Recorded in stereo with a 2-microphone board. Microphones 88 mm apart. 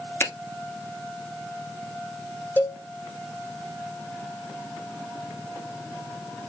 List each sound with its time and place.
0.2 s a finger snap: 25° left (ahead or behind), 1.1 m
2.6 s a cowbell: 20° left (ahead or behind), 1.5 m